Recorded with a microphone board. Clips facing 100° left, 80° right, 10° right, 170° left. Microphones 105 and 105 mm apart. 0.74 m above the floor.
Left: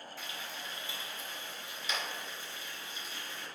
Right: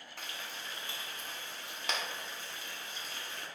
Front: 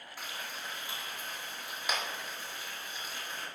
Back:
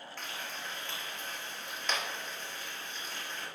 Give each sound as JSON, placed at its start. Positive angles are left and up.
{"t": 0.2, "sound": "frying", "azimuth_deg": -90, "distance_m": 1.8}